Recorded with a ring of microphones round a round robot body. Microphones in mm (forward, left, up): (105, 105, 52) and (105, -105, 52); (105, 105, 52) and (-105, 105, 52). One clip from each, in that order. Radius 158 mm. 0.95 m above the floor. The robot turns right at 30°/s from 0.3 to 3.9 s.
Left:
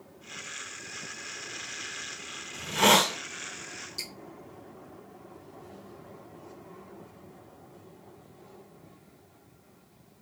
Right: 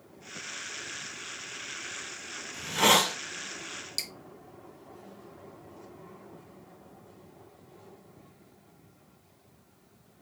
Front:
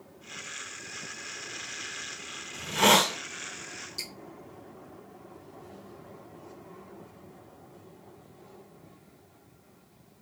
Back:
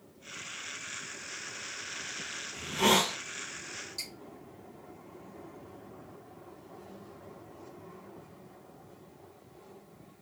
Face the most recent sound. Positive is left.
turn(degrees=-85)